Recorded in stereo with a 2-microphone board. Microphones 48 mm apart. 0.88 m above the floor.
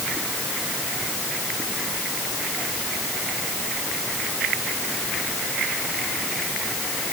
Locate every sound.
Only background noise.